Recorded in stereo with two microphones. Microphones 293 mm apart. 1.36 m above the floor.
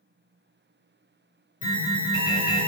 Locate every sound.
1.6 s an alarm: 55° left (ahead or behind), 4.5 m